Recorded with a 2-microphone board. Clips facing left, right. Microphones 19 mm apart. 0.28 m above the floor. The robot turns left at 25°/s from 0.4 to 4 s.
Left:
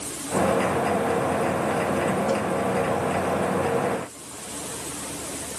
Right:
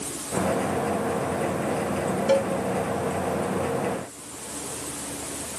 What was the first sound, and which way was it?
A cowbell, 35° right (ahead or behind).